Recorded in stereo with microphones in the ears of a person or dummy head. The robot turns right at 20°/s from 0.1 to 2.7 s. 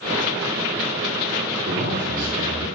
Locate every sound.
1.6 s a man speaking: 65° right (ahead or behind), 4 m; by 2.7 s 45° right (ahead or behind), 4 m